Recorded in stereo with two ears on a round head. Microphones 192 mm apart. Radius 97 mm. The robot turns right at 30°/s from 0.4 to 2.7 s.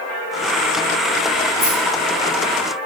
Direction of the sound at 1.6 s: 75° right (ahead or behind).